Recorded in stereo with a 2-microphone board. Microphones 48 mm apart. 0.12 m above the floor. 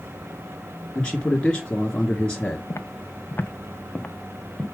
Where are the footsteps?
70° left (ahead or behind), 0.9 m; by 4.6 s 15° left (ahead or behind), 1.6 m.